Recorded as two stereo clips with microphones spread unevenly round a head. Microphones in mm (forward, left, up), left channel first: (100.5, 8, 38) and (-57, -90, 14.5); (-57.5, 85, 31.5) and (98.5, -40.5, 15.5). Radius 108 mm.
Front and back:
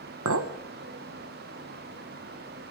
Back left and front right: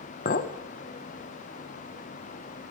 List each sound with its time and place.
0.2 s a clink: 170° right, 0.9 m